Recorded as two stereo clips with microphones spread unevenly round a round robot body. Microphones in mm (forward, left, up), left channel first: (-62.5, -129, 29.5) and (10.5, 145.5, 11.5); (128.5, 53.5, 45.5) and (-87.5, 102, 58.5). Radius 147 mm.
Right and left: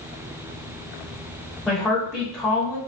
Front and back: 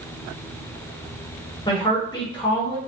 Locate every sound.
1.7 s a woman speaking: 5° right, 0.9 m